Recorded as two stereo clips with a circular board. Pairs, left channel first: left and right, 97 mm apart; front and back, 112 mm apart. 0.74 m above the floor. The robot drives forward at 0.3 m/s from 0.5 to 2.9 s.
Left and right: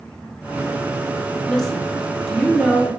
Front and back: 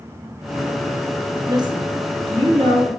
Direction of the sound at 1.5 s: 170° left.